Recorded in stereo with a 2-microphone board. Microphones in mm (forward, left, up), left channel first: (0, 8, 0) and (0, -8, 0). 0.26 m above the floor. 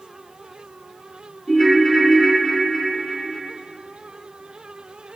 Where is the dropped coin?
I don't hear a dropped coin.